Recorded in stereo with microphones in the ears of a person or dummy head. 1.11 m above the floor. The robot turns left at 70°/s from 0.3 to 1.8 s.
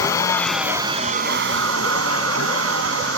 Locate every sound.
0.0 s a vehicle: 20° left (ahead or behind); by 3.2 s 70° right (ahead or behind)